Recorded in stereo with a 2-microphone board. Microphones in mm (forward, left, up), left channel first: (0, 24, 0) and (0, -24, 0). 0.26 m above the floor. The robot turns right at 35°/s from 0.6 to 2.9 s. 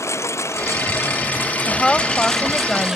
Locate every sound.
0.0 s a lawn mower: 110° left; by 3.0 s 170° right
1.7 s a woman speaking: 20° left (ahead or behind); by 3.0 s 10° left (ahead or behind)